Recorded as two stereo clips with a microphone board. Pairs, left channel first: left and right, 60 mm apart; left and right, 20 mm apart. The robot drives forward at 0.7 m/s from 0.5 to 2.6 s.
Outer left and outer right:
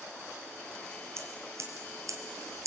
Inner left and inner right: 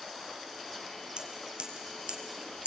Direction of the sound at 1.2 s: 50° right (ahead or behind).